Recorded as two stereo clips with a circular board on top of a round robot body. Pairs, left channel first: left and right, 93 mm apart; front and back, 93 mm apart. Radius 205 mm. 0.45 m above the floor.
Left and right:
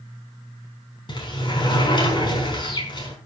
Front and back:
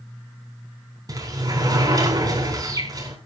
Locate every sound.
1.1 s a sliding door: 130° left, 4.5 m